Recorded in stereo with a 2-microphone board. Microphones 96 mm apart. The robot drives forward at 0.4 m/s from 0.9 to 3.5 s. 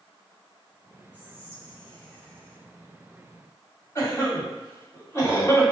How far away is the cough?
About 1.7 m.